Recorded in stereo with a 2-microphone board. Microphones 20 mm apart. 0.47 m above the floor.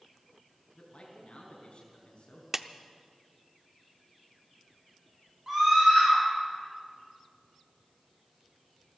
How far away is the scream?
About 7 m.